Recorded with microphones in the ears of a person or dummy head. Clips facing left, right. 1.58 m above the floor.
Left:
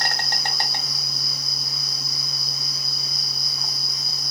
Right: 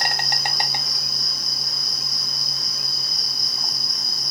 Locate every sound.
0.0 s an insect: 20° right (ahead or behind), 0.8 m